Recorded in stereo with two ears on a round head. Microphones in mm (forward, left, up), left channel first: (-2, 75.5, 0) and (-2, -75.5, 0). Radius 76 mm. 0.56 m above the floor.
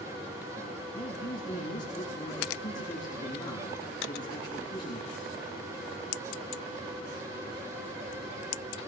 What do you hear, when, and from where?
0.9 s a man speaking: 25° left (ahead or behind), 7.5 m